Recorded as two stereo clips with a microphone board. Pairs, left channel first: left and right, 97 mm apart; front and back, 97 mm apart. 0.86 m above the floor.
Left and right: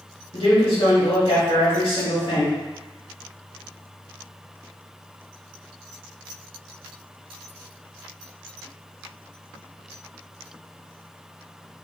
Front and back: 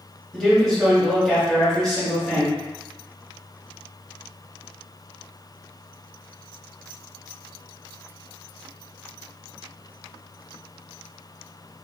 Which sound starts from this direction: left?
A man speaking, at 0.3 s.